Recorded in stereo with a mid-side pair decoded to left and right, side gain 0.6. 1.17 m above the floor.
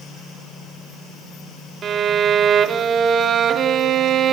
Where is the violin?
40° right, 1.8 m.